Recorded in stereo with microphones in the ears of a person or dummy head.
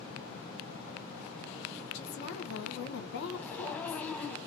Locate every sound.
1.9 s a woman speaking: 60° left (ahead or behind), 1.0 m
3.3 s a zipper: 5° left (ahead or behind), 0.8 m